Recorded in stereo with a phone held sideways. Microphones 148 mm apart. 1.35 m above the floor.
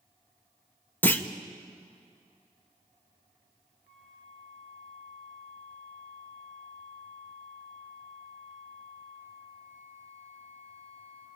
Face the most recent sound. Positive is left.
turn(degrees=-75)  # may be behind; listen again after turning